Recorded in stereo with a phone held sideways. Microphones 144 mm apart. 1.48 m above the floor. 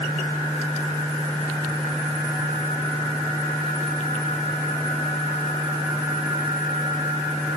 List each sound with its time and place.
Only background noise.